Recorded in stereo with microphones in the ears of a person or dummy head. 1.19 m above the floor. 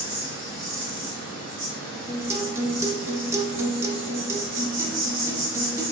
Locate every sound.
0.0 s an insect: 55° right (ahead or behind), 0.9 m
2.1 s a guitar: 20° right (ahead or behind), 0.6 m